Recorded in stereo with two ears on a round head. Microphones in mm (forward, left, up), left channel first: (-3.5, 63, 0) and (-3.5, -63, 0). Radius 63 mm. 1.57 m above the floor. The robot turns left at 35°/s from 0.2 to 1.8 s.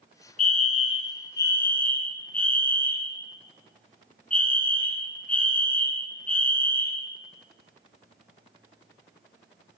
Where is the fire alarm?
60° left, 3 m; by 7.0 s 10° left, 3 m.